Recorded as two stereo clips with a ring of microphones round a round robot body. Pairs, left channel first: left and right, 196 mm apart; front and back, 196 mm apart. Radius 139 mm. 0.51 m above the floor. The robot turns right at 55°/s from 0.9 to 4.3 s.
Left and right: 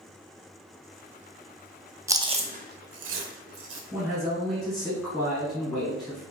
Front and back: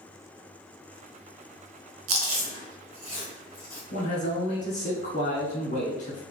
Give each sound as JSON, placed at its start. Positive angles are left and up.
{"t": 2.1, "sound": "chewing", "azimuth_deg": -170, "distance_m": 0.5}
{"t": 3.9, "sound": "a man speaking", "azimuth_deg": -20, "distance_m": 1.4}